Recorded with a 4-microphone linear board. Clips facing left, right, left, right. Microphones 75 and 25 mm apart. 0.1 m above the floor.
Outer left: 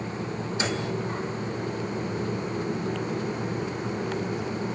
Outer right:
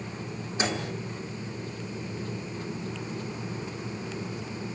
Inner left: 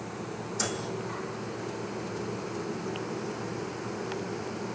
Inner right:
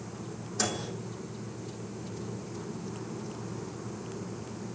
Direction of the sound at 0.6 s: 25° right (ahead or behind).